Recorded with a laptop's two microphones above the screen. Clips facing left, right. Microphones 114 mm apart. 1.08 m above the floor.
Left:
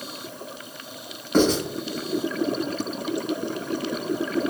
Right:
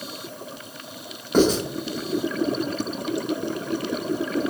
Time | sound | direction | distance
1.3 | writing | 10° right (ahead or behind) | 1.1 m